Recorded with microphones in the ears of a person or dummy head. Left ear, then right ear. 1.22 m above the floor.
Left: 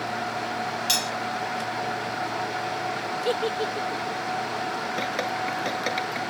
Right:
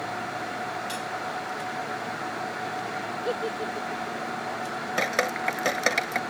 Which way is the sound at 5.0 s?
35° right (ahead or behind).